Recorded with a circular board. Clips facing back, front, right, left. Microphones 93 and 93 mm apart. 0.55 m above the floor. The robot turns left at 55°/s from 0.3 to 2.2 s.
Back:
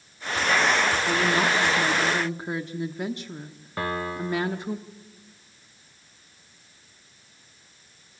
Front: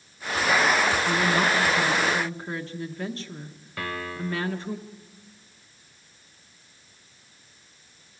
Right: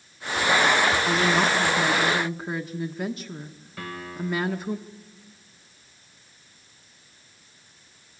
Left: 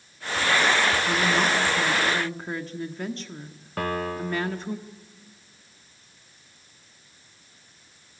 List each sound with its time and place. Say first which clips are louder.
1.1 s a woman speaking: even, right 1 dB; 90° right, 1.0 m; by 4.8 s 155° right, 1.0 m
3.8 s a piano: back 4 dB, left 6 dB; 120° left, 0.9 m